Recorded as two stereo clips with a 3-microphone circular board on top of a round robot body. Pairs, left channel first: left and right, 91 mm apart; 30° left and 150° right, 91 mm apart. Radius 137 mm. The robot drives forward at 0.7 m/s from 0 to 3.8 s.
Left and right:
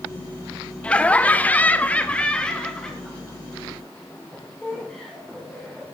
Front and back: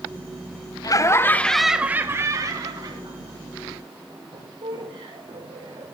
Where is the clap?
I don't hear a clap.